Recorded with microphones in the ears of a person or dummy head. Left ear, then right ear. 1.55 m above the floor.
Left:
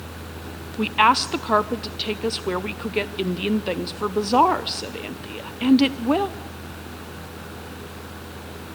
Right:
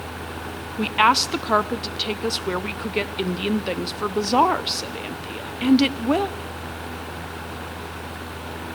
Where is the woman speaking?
5° right (ahead or behind), 0.5 m.